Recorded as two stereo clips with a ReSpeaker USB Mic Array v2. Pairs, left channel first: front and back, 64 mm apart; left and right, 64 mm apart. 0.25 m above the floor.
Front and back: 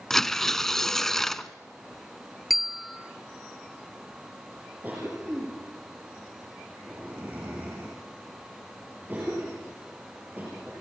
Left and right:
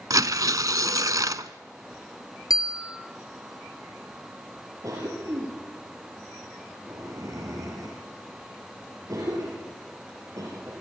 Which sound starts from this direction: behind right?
A cough, at 4.8 s.